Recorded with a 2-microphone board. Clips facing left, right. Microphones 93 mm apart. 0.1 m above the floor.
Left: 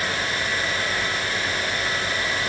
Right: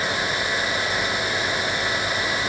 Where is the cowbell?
I don't hear a cowbell.